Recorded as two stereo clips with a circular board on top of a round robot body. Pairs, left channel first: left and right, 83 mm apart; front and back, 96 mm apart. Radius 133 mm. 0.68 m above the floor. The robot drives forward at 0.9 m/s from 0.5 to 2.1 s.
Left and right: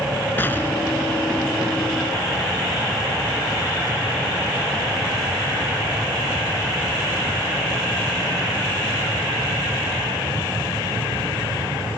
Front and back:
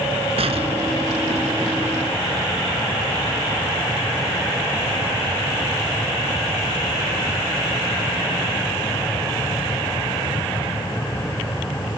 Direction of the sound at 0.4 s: 160° left.